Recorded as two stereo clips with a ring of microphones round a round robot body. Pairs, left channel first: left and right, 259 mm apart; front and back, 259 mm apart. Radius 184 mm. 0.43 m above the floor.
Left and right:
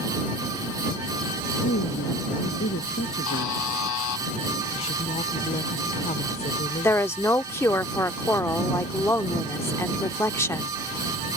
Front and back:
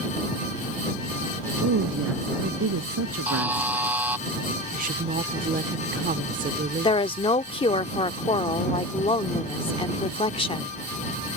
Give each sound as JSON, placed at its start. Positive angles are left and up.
{"t": 1.6, "sound": "a woman speaking", "azimuth_deg": 150}
{"t": 3.3, "sound": "a buzzer", "azimuth_deg": 95}
{"t": 4.7, "sound": "a woman speaking", "azimuth_deg": 145}
{"t": 6.8, "sound": "a woman speaking", "azimuth_deg": 25}